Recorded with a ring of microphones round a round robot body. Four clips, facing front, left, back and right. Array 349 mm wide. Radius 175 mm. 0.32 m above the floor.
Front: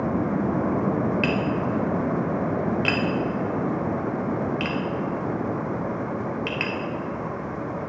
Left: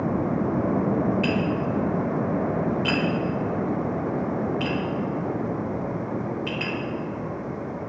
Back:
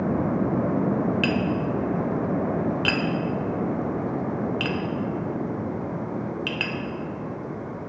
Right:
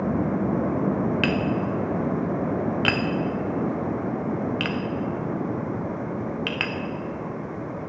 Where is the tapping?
100° right, 0.5 m.